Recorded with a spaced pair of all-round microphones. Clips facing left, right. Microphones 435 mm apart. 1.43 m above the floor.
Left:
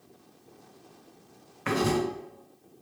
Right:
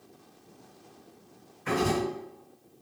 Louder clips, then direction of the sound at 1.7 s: Left 1 dB; 80° left.